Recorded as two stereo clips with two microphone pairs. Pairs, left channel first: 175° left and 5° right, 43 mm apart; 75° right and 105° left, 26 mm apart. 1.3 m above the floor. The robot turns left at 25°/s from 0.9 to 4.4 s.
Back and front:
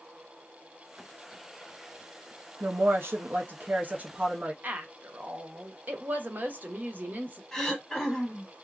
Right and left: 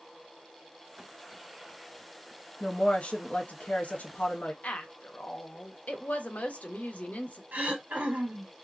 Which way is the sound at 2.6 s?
20° right.